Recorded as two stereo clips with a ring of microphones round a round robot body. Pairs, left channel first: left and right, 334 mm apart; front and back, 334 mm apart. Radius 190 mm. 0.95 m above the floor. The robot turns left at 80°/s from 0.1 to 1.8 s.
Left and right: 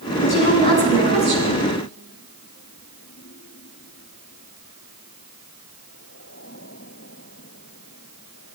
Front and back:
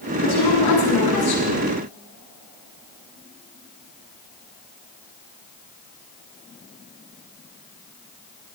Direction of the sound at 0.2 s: 55° left.